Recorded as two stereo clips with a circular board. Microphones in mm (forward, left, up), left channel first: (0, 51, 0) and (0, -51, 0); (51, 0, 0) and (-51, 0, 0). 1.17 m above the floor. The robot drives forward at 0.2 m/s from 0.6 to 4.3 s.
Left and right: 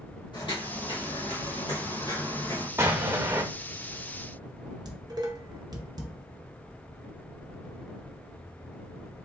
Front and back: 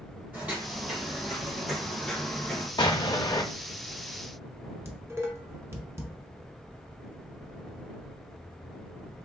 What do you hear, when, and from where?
0.3 s footsteps: 110° left, 2 m; by 2.7 s 70° left, 1.4 m
2.8 s an explosion: 30° right, 0.6 m; by 3.4 s 40° right, 0.5 m
4.8 s dishes clattering: 120° right, 0.6 m